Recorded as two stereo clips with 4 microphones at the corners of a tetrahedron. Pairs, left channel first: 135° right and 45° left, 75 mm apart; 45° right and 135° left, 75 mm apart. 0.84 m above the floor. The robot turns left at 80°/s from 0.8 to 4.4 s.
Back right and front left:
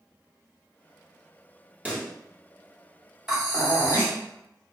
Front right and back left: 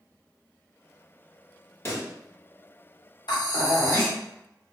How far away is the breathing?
About 1.7 m.